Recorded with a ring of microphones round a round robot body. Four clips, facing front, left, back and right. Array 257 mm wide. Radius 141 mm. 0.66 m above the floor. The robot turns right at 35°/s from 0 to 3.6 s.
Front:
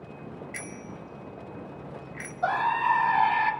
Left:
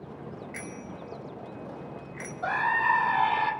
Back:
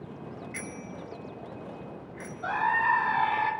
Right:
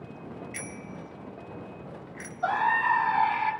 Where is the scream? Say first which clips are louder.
Right 1 dB, front 2 dB; 25° left, 3.5 m; by 3.5 s 65° left, 3.5 m.